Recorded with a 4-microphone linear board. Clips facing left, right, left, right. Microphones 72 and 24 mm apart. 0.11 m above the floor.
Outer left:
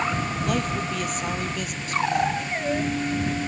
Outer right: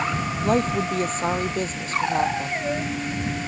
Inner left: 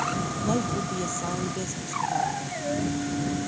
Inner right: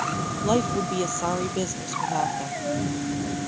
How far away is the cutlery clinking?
I don't hear cutlery clinking.